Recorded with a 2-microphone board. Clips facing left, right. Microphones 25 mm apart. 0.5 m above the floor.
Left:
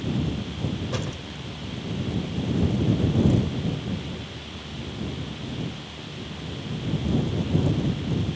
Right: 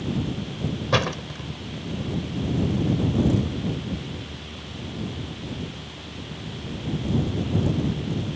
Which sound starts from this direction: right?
A door slam, at 0.9 s.